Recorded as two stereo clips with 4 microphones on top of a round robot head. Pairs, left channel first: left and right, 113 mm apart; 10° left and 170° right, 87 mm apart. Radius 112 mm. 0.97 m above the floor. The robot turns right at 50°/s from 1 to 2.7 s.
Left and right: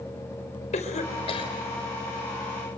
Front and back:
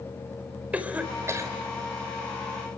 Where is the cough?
120° left, 5 m; by 1.5 s 145° left, 5 m.